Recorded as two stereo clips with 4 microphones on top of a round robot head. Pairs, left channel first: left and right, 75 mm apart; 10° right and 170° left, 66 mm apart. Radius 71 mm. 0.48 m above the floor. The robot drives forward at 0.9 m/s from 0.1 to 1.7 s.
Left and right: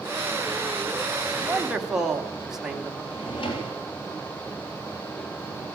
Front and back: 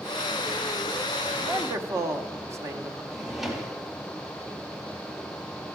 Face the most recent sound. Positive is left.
turn(degrees=85)